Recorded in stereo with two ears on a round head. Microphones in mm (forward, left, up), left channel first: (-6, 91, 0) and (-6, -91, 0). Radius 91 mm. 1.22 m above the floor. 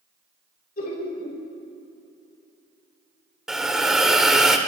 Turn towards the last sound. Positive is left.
turn(degrees=-5)  # may be behind; listen again after turning